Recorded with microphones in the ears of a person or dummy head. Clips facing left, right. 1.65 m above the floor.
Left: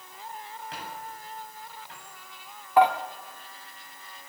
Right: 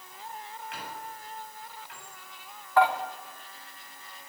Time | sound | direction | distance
0.7 | a squeak | 25° left (ahead or behind) | 8.5 m
2.8 | dishes clattering | 25° left (ahead or behind) | 3 m